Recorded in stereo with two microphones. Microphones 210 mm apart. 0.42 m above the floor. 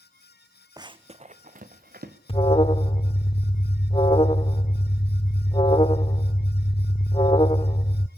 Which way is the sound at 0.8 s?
20° right (ahead or behind).